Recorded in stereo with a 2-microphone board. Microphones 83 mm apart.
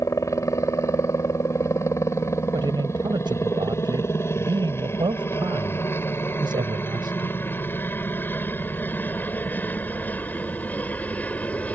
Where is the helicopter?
35° left (ahead or behind); by 11.8 s 15° left (ahead or behind).